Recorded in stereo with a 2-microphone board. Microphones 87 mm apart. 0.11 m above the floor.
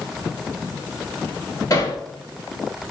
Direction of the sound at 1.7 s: 40° left (ahead or behind).